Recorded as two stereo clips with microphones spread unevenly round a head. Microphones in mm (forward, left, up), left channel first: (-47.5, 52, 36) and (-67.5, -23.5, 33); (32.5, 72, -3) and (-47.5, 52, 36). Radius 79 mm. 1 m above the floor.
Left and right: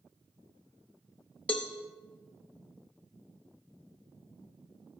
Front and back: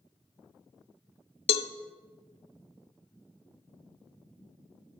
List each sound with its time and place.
1.5 s a cowbell: 5° right, 0.5 m